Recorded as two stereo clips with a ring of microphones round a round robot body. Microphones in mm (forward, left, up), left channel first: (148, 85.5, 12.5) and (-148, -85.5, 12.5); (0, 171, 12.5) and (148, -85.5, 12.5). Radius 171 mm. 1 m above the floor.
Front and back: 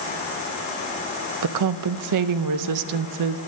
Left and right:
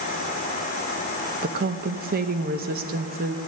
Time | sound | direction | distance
1.4 | a woman speaking | 120° right | 0.7 m